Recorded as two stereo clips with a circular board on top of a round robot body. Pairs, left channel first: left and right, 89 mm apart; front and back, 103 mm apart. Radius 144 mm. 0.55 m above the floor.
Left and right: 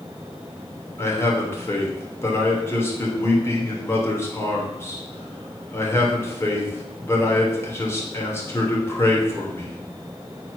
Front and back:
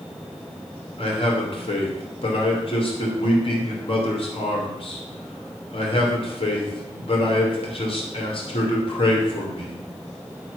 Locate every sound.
1.0 s a man speaking: 30° left, 2.5 m